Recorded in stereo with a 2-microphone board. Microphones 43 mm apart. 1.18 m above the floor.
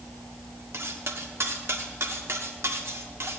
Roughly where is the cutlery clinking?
Right.